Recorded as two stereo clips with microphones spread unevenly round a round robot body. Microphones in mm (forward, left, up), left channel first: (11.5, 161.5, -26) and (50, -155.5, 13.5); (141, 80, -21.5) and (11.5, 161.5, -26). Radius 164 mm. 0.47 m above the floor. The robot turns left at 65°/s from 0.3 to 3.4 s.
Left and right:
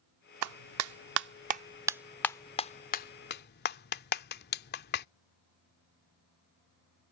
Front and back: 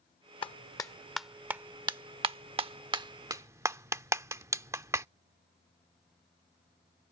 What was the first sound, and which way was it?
A clap, 75° right.